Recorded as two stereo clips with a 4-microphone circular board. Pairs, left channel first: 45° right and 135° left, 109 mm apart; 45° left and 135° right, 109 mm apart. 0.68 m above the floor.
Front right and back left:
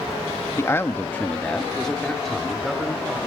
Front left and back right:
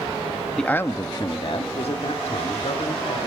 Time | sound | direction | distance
0.6 | a man speaking | 35° right | 0.7 m